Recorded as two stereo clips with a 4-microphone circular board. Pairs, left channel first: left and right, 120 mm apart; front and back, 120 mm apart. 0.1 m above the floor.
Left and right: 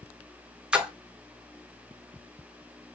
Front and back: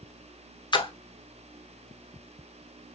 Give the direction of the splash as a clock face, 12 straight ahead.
12 o'clock.